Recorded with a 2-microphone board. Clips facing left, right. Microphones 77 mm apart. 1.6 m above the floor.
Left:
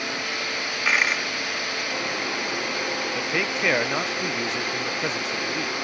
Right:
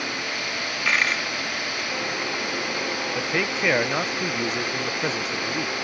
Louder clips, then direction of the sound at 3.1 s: Right 2 dB; 5° right (ahead or behind).